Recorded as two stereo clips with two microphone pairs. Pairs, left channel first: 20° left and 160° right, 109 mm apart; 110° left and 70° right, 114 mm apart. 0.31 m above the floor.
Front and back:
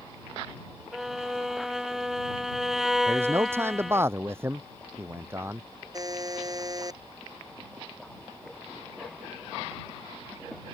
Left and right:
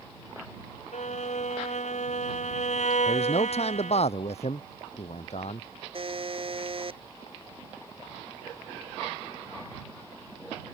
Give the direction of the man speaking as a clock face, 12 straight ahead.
8 o'clock.